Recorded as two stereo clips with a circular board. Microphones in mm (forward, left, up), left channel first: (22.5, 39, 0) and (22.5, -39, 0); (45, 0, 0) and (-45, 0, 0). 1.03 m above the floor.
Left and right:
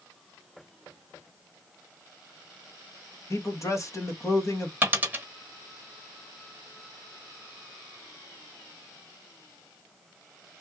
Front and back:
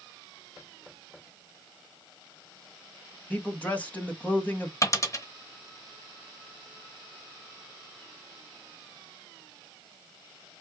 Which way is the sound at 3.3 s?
65° left.